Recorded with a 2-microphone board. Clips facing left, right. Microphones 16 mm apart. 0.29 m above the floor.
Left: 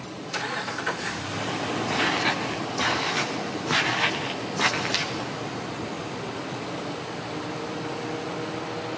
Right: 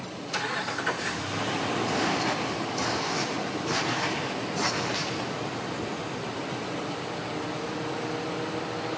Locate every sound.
1.9 s footsteps: 75° left (ahead or behind), 4 m; by 5.1 s 60° left (ahead or behind), 5 m